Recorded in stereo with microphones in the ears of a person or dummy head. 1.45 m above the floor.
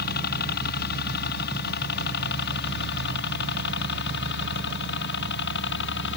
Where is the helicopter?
55° left (ahead or behind); by 6.2 s 65° left (ahead or behind).